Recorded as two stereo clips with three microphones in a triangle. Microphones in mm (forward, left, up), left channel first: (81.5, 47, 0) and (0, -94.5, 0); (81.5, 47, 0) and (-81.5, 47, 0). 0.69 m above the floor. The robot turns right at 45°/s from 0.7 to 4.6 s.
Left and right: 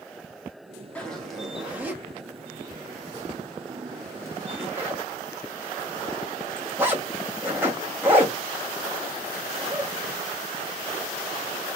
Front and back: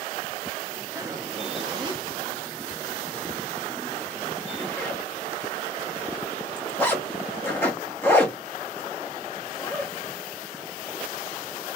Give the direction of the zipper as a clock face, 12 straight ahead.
8 o'clock.